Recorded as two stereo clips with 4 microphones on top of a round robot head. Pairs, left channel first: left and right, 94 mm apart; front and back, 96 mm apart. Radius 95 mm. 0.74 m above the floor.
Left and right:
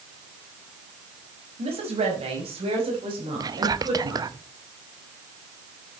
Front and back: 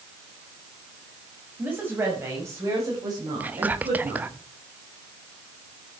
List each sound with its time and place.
1.6 s a woman speaking: 105° right, 5.5 m; by 4.4 s 135° right, 6 m
3.4 s whispering: 110° right, 1.0 m